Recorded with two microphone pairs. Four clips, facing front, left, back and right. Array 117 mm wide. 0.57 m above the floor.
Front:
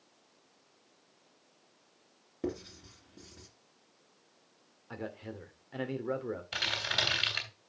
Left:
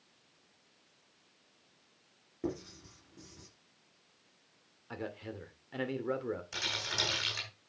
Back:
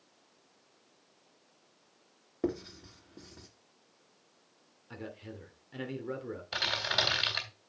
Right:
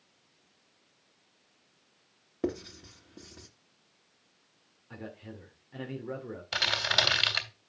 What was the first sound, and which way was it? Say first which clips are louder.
Writing: right 5 dB, back 3 dB; 135° right.